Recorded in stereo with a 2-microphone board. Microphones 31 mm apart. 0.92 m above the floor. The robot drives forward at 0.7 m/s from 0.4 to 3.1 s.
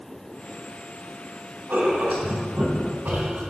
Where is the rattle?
I don't hear a rattle.